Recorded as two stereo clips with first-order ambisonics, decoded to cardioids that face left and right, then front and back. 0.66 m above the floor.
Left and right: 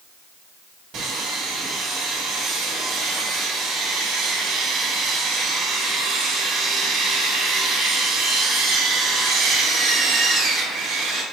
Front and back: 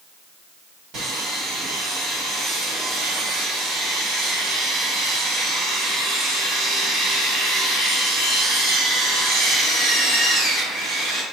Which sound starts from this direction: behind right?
Sawing, at 0.9 s.